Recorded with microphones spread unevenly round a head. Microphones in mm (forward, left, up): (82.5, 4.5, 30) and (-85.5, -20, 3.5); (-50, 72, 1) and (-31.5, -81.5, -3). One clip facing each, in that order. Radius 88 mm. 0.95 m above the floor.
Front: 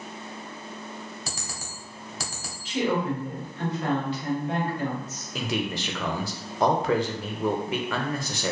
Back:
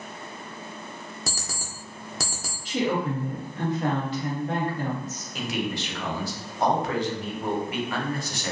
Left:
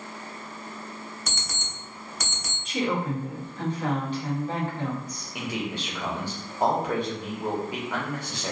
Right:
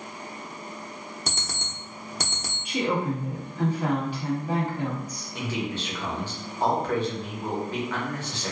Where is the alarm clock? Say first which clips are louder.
Back 2 dB, right 2 dB; 130° right, 0.6 m.